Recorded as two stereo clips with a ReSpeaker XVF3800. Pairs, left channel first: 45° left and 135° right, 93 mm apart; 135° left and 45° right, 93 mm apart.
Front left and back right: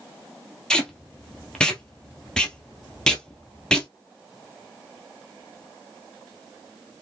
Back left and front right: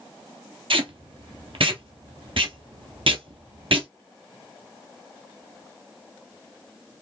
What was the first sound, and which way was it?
Tape being pulled, 35° right.